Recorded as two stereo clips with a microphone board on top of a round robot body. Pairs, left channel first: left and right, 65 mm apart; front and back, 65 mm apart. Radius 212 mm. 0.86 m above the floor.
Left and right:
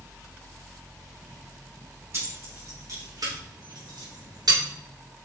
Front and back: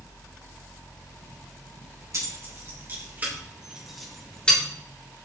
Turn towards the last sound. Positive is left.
turn(degrees=-70)